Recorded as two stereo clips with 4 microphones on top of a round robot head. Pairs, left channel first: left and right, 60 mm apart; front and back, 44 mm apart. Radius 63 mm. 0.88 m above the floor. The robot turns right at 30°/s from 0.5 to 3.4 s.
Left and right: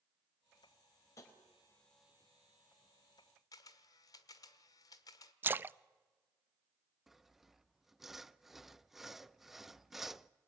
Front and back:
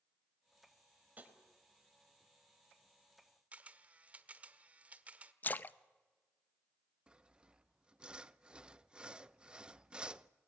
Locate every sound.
1.2 s tapping: 125° left, 4 m; by 1.3 s 130° left, 4 m
3.5 s a camera shutter: 125° left, 1.3 m
5.4 s a splash: 40° right, 0.6 m
7.1 s sawing: 170° right, 0.8 m